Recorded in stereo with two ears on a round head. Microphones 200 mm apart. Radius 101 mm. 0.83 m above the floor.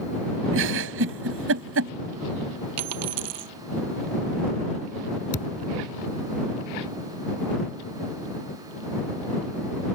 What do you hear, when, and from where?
0.5 s a giggle: 65° right (ahead or behind)
2.8 s a dropped coin: 75° right (ahead or behind)
5.3 s a thud: 35° left (ahead or behind)